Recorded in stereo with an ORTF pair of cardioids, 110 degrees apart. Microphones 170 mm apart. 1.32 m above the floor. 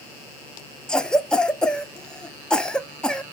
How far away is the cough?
About 0.5 m.